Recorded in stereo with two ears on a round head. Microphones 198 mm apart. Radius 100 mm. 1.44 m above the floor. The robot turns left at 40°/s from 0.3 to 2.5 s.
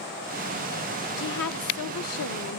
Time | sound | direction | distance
1.2 | a woman speaking | 120° left | 1.0 m